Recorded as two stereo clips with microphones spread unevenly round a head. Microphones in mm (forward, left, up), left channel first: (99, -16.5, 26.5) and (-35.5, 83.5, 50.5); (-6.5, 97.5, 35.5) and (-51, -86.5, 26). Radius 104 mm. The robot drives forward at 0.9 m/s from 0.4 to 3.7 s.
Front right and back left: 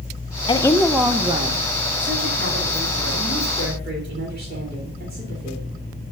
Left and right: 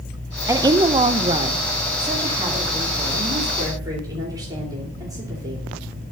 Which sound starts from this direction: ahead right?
A woman speaking, at 0.5 s.